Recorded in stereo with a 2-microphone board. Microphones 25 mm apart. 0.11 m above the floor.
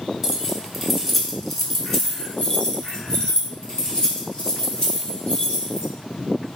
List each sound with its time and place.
0.2 s keys jangling: 10° right (ahead or behind), 1.2 m; by 5.9 s 30° left (ahead or behind), 2.5 m